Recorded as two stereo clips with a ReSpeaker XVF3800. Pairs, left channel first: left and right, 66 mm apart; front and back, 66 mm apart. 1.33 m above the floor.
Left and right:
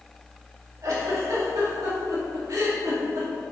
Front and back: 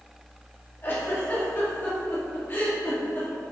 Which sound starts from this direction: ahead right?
A giggle, at 0.8 s.